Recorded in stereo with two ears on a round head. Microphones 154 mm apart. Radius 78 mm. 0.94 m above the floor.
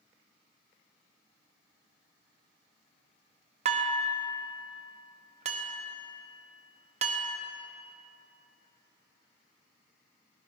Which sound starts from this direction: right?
Dishes clattering, at 3.6 s.